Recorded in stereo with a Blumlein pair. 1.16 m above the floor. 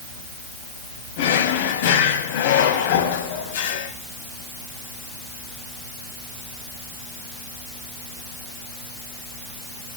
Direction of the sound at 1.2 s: 55° left.